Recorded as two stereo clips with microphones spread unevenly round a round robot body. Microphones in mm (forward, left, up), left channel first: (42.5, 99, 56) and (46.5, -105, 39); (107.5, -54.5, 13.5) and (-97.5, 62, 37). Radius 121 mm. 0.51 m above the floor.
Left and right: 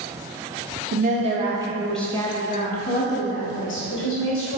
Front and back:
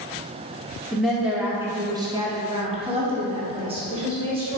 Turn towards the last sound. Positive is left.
turn(degrees=80)